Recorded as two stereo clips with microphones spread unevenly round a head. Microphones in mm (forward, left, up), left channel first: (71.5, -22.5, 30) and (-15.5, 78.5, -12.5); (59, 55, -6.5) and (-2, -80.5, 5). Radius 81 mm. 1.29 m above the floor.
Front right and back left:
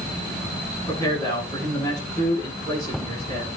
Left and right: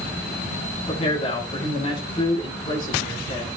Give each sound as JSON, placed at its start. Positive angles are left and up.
{"t": 0.8, "sound": "a man speaking", "azimuth_deg": 20, "distance_m": 8.5}